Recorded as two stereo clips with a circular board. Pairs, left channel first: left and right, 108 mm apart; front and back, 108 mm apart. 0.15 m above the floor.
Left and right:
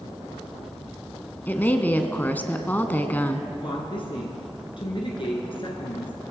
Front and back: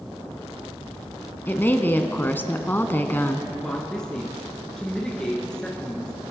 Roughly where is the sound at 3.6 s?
Left.